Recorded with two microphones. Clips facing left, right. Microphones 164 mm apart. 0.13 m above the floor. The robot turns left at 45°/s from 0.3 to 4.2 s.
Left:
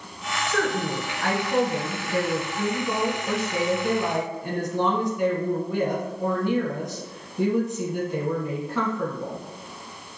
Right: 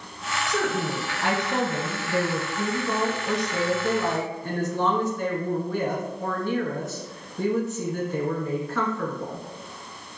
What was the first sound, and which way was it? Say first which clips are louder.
A woman speaking: left 1 dB; 15° right (ahead or behind).